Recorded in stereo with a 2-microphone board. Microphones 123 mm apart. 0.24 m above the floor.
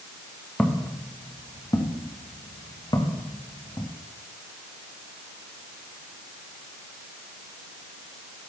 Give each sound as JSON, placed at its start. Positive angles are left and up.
{"t": 0.6, "sound": "footsteps", "side_deg": 10, "distance_m": 3.0}